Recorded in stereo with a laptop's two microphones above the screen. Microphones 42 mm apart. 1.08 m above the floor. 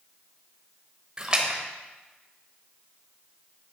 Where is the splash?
25° right (ahead or behind), 1.0 m.